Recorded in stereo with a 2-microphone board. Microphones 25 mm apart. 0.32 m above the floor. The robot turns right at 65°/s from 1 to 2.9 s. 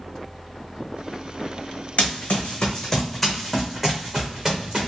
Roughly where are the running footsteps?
Left.